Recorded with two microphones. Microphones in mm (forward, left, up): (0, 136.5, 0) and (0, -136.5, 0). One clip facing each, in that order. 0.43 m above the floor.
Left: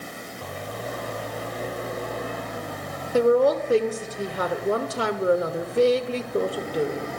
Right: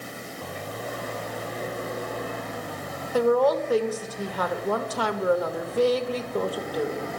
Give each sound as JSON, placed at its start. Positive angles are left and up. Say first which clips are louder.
{"t": 3.1, "sound": "a woman speaking", "louder": "left 2 dB", "side_deg": 30, "distance_m": 1.0}